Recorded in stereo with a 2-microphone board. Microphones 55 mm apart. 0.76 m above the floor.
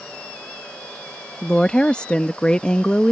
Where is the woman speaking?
20° left (ahead or behind).